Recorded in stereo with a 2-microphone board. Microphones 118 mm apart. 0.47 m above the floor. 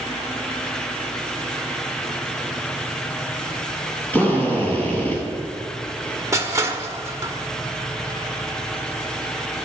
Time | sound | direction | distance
4.1 | a drill | 15° left (ahead or behind) | 4.5 m
6.3 | crushing | 25° right (ahead or behind) | 1.2 m